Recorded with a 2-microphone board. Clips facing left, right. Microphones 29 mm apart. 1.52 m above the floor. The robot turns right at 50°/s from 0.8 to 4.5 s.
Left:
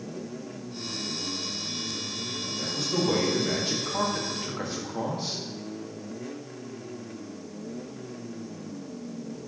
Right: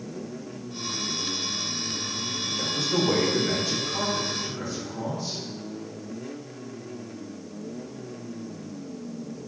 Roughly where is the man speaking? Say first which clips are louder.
Right 3 dB; ahead right.